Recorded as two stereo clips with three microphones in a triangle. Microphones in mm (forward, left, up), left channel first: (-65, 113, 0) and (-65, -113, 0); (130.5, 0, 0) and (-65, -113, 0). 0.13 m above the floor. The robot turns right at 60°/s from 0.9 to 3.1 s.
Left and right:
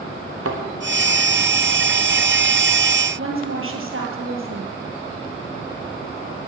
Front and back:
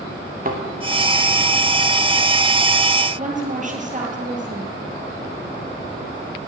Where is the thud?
100° right, 2.5 m.